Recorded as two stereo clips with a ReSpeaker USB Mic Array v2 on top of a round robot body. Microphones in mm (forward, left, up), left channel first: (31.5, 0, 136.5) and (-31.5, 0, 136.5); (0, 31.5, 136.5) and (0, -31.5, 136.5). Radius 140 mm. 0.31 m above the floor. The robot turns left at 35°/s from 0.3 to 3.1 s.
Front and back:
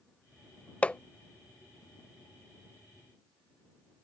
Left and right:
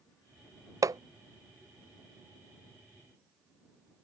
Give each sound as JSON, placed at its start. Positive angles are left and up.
{"t": 0.8, "sound": "hammering", "azimuth_deg": -70}